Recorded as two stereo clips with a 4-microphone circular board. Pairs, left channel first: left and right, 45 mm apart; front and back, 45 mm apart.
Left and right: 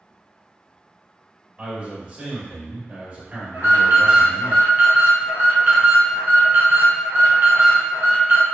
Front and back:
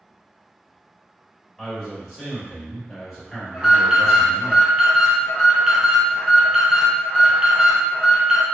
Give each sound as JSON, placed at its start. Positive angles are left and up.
{"t": 1.6, "sound": "a man speaking", "azimuth_deg": -85, "distance_m": 1.7}
{"t": 3.5, "sound": "an alarm", "azimuth_deg": -100, "distance_m": 1.5}